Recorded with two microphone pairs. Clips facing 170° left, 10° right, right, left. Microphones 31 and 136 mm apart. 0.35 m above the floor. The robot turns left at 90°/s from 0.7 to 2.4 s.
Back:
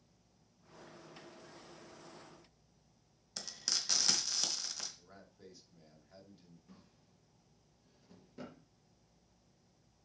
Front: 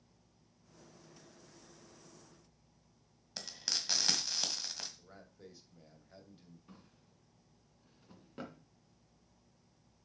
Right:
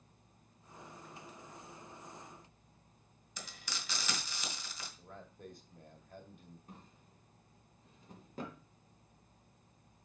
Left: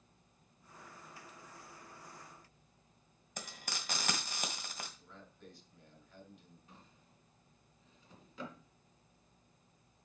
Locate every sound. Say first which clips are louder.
3.4 s frying: front 1 dB, left 2 dB; 60° left, 1.8 m
5.0 s a man speaking: front 2 dB, right 5 dB; 80° right, 2 m
6.7 s a drawer: front 2 dB, right 5 dB; 50° right, 2.5 m